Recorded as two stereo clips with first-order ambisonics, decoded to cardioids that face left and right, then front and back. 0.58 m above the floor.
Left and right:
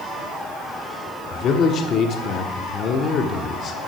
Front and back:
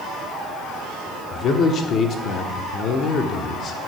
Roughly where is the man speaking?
Ahead left.